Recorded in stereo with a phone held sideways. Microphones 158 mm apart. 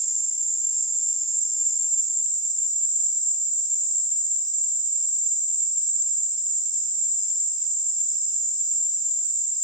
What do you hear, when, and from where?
0.0 s an insect: 25° left (ahead or behind), 3.5 m